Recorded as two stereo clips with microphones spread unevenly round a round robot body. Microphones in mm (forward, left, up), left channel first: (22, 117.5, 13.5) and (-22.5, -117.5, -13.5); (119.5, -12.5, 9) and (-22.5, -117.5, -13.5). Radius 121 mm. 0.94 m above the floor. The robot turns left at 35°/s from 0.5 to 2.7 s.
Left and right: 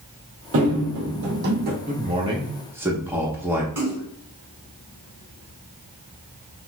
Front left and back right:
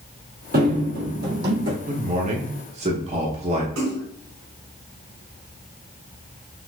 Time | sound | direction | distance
0.5 | running footsteps | 125° right | 1.4 m
1.9 | a man speaking | 145° right | 1.0 m
3.8 | a splash | 175° left | 2 m